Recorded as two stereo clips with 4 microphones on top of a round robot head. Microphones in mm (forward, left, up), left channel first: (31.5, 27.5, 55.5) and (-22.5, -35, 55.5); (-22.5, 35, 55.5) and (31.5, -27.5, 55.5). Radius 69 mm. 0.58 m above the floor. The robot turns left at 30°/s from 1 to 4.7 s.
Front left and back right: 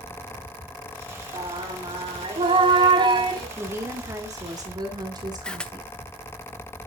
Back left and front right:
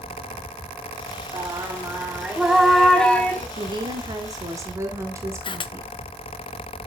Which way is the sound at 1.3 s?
95° right.